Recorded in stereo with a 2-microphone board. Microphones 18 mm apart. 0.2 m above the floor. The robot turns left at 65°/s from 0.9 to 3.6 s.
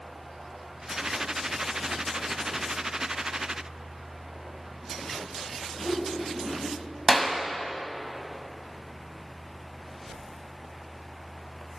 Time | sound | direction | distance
5.8 | a whoosh | 5° left (ahead or behind) | 1.4 m
7.1 | a clap | centre (ahead or behind) | 0.7 m